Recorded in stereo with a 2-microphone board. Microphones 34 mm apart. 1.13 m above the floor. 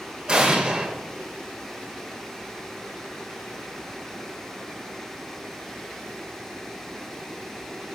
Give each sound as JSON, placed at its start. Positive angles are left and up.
{"t": 0.3, "sound": "an explosion", "side_deg": -25, "distance_m": 0.9}